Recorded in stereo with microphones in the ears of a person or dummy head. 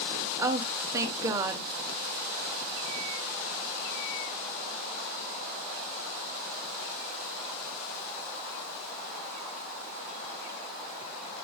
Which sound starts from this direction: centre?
A woman speaking, at 0.4 s.